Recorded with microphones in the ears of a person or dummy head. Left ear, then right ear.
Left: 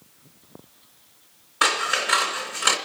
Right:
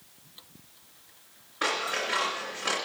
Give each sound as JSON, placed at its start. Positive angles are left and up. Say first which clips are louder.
{"t": 1.6, "sound": "scissors", "louder": "left 7 dB", "side_deg": 50, "distance_m": 2.5}